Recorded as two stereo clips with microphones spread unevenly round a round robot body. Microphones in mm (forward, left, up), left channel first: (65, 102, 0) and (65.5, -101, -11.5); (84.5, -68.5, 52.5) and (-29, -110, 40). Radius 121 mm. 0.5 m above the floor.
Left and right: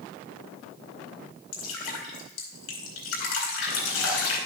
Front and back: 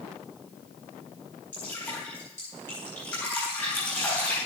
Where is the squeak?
I don't hear a squeak.